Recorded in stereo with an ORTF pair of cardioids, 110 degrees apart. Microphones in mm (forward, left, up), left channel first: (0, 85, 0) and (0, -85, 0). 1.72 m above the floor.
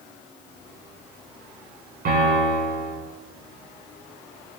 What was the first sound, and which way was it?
A piano, 55° right.